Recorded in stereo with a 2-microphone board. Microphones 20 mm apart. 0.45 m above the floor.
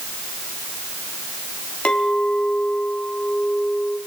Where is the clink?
65° left (ahead or behind), 3 m.